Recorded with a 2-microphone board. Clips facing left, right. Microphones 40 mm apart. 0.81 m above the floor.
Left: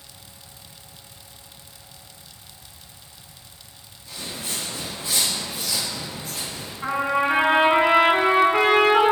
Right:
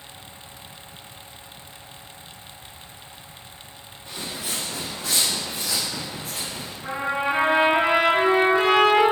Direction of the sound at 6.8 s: 65° left (ahead or behind).